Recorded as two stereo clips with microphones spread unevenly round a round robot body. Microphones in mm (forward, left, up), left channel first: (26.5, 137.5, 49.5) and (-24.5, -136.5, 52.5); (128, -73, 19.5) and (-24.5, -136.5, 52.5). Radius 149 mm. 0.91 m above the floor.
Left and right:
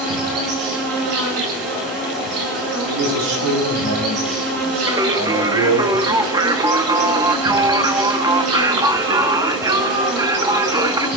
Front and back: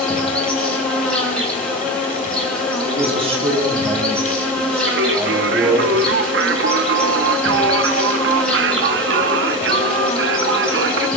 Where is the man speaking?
100° right, 9 m.